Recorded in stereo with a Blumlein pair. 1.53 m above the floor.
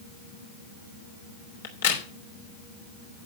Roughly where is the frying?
No frying in this recording.